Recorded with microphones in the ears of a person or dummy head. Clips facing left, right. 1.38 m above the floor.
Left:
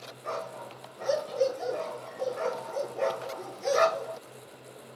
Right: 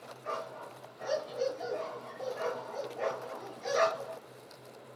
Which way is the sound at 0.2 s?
50° left (ahead or behind).